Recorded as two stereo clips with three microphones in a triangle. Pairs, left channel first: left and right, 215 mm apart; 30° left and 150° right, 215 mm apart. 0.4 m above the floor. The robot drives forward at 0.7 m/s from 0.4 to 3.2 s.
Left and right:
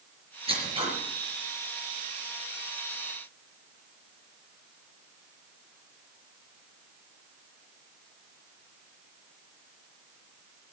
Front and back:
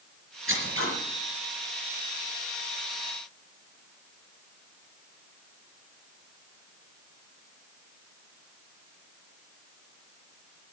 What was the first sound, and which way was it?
Scissors, 155° right.